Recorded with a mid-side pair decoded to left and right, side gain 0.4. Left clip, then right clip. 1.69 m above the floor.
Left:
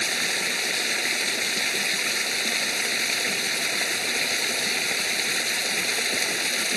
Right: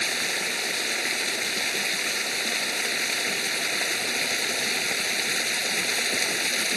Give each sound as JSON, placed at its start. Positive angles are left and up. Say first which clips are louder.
{"t": 0.0, "sound": "running water", "louder": "left 1 dB", "azimuth_deg": 25}